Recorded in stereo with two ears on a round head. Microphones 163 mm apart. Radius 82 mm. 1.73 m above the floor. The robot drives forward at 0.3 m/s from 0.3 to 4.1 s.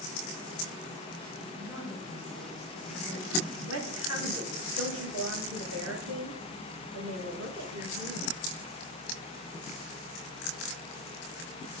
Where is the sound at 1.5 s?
15° right (ahead or behind), 5.5 m.